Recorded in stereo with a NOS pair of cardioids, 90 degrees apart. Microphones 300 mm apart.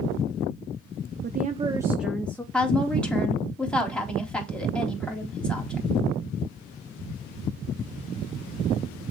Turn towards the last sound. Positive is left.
turn(degrees=5)